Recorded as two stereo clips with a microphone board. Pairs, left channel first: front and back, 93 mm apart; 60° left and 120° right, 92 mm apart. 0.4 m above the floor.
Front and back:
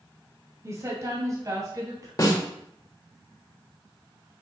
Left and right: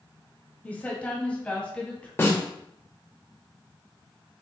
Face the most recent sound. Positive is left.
turn(degrees=15)